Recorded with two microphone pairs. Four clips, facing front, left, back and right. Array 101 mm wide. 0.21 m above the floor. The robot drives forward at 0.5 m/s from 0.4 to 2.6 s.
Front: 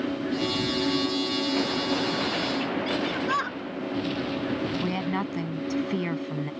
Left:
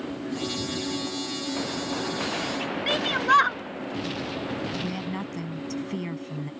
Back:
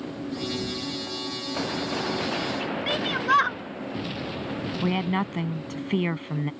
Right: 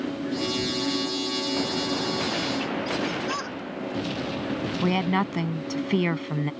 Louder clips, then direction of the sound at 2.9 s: Left 5 dB, back 2 dB; 115° left.